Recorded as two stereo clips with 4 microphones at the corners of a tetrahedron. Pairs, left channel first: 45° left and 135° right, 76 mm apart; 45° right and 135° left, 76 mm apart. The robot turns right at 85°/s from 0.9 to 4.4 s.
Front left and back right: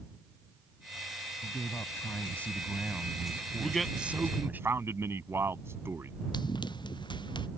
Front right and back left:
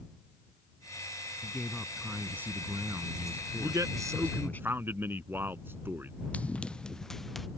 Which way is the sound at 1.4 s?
15° left.